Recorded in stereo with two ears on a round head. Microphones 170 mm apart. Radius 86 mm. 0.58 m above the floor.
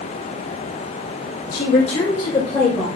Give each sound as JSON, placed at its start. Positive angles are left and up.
{"t": 1.5, "sound": "a woman speaking", "side_deg": 50, "distance_m": 1.7}